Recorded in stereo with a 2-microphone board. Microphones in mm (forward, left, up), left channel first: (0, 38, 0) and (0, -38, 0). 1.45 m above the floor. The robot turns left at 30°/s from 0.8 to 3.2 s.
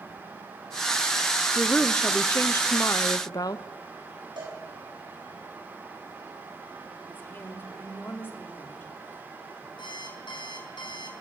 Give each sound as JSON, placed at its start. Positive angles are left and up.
{"t": 1.6, "sound": "a woman speaking", "azimuth_deg": 175, "distance_m": 0.7}
{"t": 4.4, "sound": "a cowbell", "side_deg": -80, "distance_m": 9.5}
{"t": 7.1, "sound": "a woman speaking", "side_deg": 25, "distance_m": 4.0}
{"t": 9.8, "sound": "an alarm clock", "side_deg": 75, "distance_m": 5.5}